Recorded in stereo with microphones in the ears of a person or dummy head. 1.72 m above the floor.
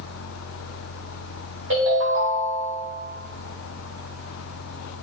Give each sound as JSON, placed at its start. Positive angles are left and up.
{"t": 1.7, "sound": "a ringtone", "side_deg": -55, "distance_m": 1.3}